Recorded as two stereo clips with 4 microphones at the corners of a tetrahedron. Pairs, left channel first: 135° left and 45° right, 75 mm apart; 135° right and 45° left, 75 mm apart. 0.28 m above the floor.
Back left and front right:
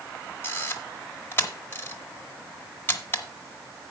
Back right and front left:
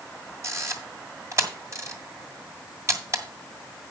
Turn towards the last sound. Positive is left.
turn(degrees=85)